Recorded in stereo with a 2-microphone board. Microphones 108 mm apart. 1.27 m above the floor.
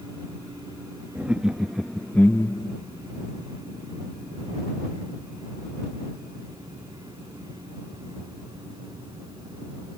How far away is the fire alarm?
I don't hear a fire alarm.